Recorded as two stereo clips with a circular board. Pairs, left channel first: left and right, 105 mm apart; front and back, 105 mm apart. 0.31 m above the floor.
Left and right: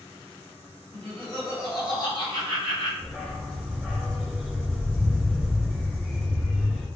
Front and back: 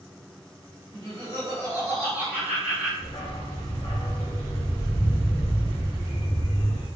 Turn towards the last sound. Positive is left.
turn(degrees=0)